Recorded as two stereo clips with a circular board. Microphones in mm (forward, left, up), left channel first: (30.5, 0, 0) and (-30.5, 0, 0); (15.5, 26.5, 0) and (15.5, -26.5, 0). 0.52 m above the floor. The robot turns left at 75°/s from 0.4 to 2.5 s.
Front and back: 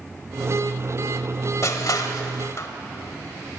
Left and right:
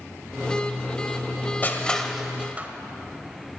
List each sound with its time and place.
1.6 s crushing: 35° left, 1.2 m; by 2.7 s 30° right, 1.2 m